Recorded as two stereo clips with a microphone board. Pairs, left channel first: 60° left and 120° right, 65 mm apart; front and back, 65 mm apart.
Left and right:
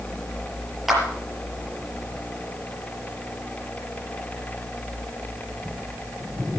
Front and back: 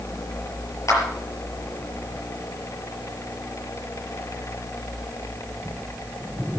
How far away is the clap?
About 5 m.